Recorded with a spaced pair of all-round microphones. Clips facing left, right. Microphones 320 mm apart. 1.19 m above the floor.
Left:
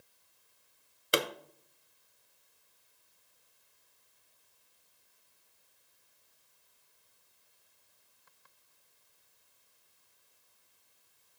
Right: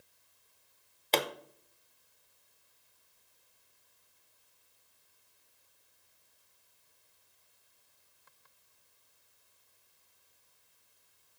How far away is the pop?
About 0.6 m.